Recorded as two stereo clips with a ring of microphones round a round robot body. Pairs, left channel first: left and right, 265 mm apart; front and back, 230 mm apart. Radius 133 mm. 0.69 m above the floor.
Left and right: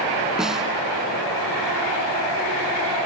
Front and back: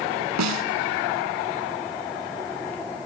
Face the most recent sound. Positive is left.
turn(degrees=180)